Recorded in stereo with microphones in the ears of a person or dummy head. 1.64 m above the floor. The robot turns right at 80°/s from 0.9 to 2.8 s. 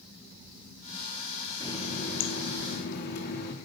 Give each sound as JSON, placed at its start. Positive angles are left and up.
{"t": 1.6, "sound": "a running tap", "azimuth_deg": 20, "distance_m": 2.5}